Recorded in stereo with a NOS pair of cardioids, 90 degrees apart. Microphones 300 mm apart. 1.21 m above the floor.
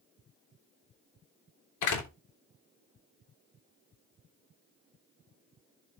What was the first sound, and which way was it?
A door slam, 70° left.